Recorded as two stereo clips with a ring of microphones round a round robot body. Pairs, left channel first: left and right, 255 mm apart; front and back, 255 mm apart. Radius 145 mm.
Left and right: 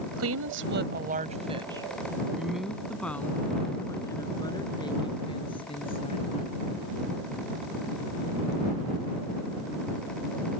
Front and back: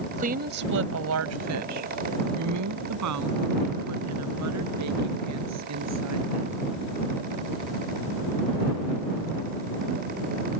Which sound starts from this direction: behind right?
A woman speaking, at 0.2 s.